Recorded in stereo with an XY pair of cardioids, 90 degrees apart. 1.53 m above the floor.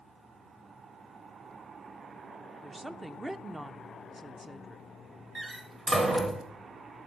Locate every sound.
2.6 s a woman speaking: 15° right, 0.7 m
5.3 s a door slam: 35° right, 2.5 m